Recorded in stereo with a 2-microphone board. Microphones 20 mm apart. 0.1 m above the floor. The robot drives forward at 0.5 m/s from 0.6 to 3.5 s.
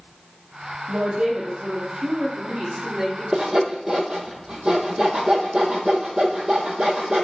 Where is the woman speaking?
50° right (ahead or behind), 2.5 m; by 3.2 s 35° right (ahead or behind), 3 m.